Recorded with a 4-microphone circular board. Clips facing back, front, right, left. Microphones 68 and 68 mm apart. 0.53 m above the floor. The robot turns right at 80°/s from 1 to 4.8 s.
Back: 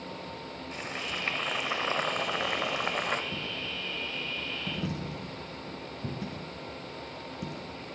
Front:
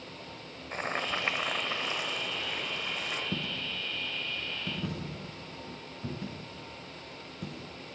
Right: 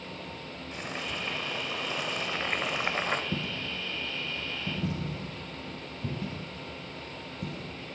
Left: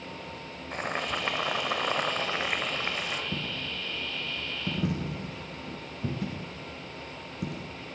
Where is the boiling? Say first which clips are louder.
Front 5 dB, left 6 dB; 50° left, 0.9 m; by 3.2 s 135° right, 0.9 m.